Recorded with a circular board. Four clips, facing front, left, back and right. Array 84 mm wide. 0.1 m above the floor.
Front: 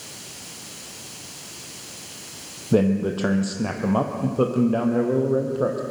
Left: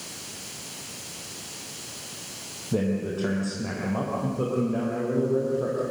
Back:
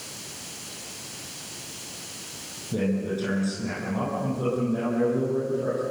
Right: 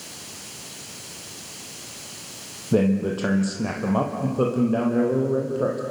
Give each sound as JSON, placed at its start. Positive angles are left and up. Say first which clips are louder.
{"t": 2.7, "sound": "a man speaking", "louder": "right 6 dB, front 7 dB", "azimuth_deg": -30, "distance_m": 3.5}